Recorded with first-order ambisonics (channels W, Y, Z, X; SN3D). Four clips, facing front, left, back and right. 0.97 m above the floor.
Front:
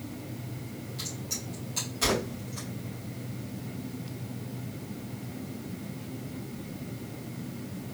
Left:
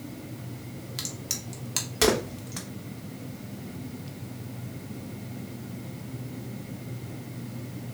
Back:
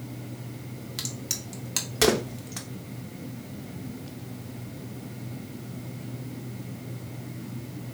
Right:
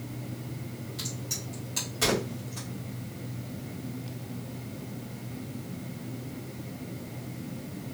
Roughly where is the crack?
Behind left.